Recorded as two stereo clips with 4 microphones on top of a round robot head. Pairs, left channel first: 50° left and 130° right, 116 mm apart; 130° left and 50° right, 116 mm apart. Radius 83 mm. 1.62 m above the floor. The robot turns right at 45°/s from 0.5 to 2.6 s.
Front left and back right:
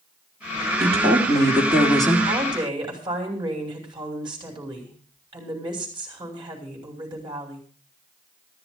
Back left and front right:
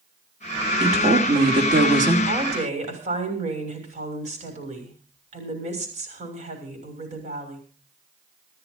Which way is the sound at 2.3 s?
90° right.